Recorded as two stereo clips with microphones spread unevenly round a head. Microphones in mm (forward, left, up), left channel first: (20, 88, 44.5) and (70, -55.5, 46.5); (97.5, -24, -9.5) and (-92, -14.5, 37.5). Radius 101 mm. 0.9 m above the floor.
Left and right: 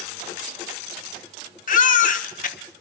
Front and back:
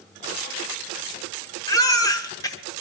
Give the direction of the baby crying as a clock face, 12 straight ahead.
10 o'clock.